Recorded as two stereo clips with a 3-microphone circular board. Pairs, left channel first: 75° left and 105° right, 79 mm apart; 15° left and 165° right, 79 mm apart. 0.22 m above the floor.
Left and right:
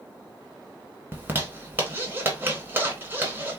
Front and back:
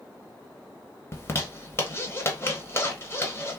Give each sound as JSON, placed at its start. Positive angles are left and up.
{"t": 1.1, "sound": "a zipper", "azimuth_deg": -40, "distance_m": 0.9}